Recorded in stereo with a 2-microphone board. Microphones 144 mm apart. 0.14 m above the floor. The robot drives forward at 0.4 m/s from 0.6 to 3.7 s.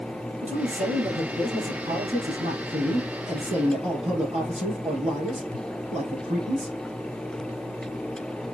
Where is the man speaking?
55° right (ahead or behind), 3.5 m; by 6.8 s 40° right (ahead or behind), 4 m.